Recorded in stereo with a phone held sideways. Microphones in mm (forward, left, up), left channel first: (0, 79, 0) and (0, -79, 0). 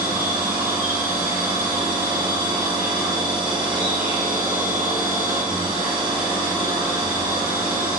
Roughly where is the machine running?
Right.